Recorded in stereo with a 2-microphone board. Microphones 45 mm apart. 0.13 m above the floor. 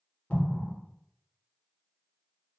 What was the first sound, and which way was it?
An explosion, 30° left (ahead or behind).